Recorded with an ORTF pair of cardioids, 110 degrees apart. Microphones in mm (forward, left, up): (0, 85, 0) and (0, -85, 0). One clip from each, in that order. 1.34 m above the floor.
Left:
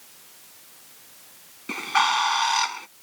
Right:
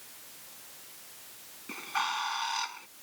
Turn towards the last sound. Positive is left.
turn(degrees=55)